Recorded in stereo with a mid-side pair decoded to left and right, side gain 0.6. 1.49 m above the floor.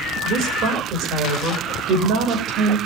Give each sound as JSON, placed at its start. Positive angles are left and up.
{"t": 0.2, "sound": "a woman speaking", "azimuth_deg": -55, "distance_m": 6.0}